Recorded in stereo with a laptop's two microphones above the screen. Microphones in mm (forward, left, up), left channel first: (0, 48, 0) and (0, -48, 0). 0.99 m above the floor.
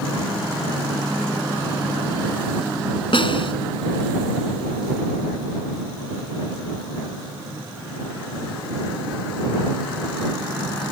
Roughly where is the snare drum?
Left.